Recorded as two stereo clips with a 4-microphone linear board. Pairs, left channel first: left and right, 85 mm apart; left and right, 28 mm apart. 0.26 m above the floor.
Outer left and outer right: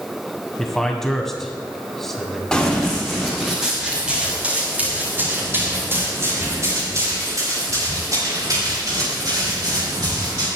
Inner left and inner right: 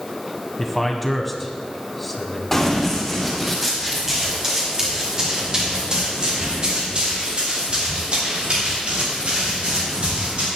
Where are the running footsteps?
5° left (ahead or behind), 6 m; by 10.5 s 60° right (ahead or behind), 11.5 m.